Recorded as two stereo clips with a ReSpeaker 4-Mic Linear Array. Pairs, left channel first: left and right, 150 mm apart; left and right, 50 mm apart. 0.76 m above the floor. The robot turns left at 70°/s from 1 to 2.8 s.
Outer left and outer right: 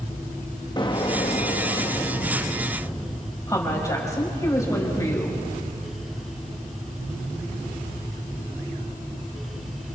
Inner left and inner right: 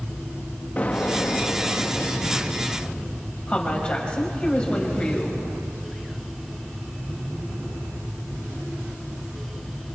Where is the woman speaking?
20° left (ahead or behind), 4.5 m.